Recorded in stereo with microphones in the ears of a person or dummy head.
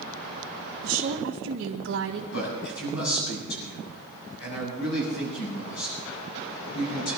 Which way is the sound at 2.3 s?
70° left (ahead or behind).